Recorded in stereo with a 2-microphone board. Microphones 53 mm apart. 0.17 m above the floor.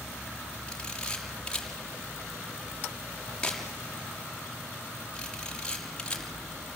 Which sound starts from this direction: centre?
A camera shutter, at 0.7 s.